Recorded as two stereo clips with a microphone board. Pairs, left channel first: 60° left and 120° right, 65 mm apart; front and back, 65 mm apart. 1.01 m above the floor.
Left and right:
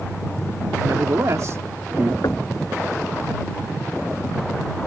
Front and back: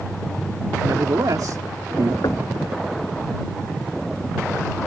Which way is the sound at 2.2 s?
25° left.